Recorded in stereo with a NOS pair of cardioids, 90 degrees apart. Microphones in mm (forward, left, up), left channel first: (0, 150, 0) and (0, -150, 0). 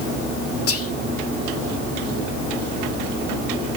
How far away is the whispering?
About 1.2 m.